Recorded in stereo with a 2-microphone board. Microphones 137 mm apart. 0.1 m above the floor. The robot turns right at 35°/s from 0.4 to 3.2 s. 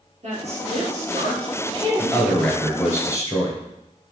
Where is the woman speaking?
100° right, 3 m; by 2.3 s 30° right, 3 m.